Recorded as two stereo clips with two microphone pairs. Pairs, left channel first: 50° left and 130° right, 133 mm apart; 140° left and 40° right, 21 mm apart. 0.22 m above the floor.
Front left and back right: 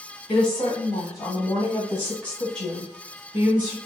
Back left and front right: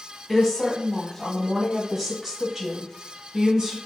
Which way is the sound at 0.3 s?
70° left.